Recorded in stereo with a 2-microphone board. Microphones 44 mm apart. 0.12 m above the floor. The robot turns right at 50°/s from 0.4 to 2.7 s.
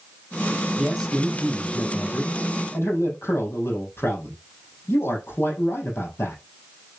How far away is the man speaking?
About 5 m.